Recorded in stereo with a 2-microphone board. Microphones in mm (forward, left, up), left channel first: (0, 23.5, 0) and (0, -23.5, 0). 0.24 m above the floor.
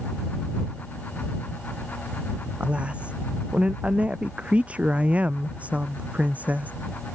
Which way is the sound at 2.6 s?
25° right (ahead or behind).